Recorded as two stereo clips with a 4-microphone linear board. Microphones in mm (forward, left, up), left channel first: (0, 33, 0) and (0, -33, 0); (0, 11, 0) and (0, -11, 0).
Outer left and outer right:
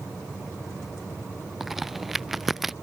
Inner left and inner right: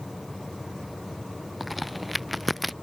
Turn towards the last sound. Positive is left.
turn(degrees=0)  # may be behind; listen again after turning